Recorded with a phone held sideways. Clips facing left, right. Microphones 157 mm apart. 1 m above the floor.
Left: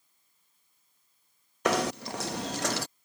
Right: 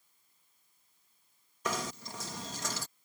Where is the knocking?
70° left (ahead or behind).